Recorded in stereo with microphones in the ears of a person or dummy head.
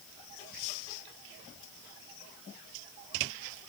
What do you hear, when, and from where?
Only background noise.